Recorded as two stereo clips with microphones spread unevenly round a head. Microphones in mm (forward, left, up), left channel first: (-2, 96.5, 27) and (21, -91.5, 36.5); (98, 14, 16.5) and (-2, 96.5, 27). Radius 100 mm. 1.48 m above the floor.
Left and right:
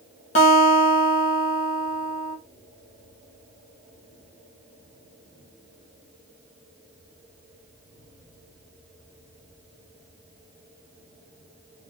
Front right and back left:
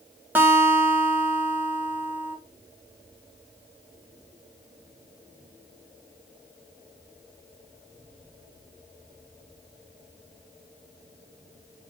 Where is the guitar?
90° left, 0.8 m.